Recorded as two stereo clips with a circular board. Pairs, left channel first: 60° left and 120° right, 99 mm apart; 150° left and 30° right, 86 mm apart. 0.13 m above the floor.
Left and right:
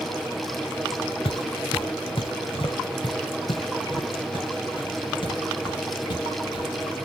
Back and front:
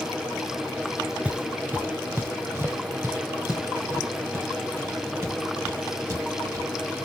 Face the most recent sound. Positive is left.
turn(degrees=25)